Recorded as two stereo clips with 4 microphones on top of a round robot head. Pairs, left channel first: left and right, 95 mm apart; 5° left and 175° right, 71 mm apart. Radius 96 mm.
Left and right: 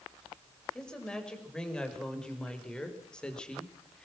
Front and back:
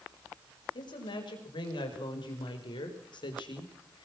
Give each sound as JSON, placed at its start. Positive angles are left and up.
{"t": 0.8, "sound": "a woman speaking", "azimuth_deg": 10, "distance_m": 6.5}